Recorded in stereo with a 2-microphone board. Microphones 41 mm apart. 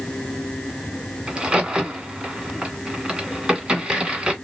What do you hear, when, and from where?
1.3 s a crack: 15° right (ahead or behind), 1.7 m